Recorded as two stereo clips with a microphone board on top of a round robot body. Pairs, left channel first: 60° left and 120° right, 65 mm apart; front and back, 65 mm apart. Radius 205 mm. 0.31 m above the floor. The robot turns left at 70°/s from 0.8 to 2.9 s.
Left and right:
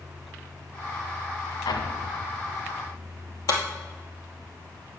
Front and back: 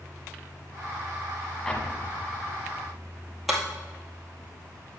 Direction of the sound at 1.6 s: 80° left.